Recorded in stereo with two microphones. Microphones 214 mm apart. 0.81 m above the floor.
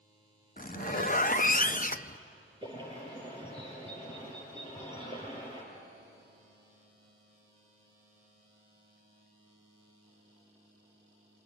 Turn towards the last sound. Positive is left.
turn(degrees=-25)  # may be behind; listen again after turning